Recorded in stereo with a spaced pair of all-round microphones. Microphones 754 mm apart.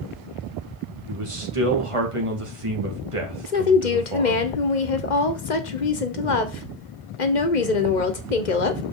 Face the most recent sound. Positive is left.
turn(degrees=70)  # may be behind; listen again after turning